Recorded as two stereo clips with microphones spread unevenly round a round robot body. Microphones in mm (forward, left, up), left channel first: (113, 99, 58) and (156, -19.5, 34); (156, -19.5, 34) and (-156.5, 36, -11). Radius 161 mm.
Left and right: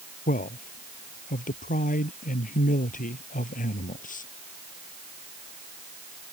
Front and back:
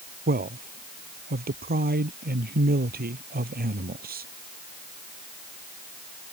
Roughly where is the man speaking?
Left.